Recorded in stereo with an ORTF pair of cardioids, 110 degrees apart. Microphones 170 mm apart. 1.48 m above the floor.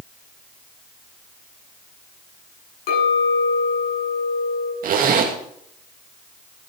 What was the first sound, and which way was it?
A clink, 60° left.